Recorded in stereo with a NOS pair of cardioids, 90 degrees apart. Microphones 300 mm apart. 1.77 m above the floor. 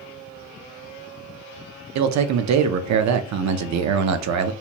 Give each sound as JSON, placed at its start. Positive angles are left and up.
{"t": 1.9, "sound": "a man speaking", "azimuth_deg": -65, "distance_m": 0.7}